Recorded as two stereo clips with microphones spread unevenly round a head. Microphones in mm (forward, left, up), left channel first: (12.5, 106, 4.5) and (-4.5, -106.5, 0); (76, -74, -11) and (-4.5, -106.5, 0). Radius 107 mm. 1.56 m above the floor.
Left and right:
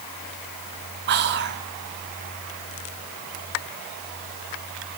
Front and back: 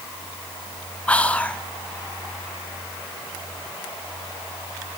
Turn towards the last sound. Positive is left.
turn(degrees=-55)